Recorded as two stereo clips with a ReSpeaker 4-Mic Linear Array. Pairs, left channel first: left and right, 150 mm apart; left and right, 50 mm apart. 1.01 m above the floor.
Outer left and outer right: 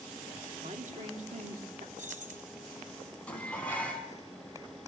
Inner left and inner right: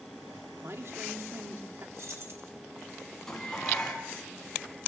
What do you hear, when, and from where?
0.6 s a man speaking: 55° right (ahead or behind), 2.5 m
2.0 s keys jangling: 60° right (ahead or behind), 4.5 m
3.3 s dishes clattering: 10° left (ahead or behind), 5.5 m